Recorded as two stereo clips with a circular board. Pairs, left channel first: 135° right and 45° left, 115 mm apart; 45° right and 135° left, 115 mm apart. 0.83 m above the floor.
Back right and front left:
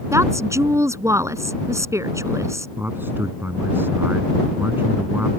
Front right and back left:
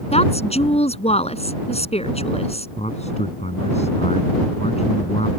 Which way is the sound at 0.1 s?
20° right.